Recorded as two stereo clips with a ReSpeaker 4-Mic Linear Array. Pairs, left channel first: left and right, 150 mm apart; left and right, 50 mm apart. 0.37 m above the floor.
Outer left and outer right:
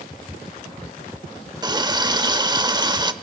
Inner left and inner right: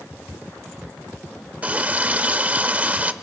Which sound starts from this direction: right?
A running tap, at 1.6 s.